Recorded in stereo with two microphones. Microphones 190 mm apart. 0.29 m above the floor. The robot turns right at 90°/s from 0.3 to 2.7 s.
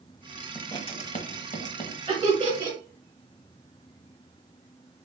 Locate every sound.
0.6 s writing: 10° left (ahead or behind), 0.7 m; by 2.0 s 25° left (ahead or behind), 0.7 m
2.1 s laughter: 30° right (ahead or behind), 1.1 m; by 2.8 s 35° right (ahead or behind), 1.1 m